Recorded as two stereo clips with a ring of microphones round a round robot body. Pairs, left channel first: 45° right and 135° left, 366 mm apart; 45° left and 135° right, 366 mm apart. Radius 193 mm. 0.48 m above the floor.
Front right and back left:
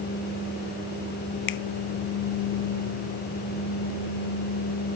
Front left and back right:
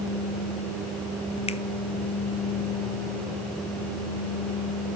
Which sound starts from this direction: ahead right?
A finger snap, at 1.5 s.